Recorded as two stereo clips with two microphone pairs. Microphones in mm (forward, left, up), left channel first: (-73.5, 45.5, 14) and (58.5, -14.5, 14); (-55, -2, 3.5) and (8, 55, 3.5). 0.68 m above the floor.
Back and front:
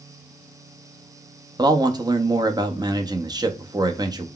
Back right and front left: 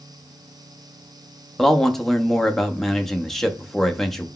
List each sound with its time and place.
1.6 s a man speaking: 55° right, 0.5 m